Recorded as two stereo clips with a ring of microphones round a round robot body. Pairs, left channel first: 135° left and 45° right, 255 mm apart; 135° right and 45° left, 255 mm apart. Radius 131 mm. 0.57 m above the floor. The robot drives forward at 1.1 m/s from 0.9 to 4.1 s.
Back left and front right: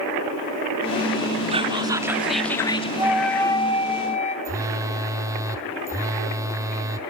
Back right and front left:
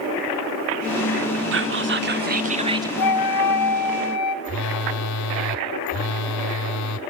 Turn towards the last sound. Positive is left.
turn(degrees=-125)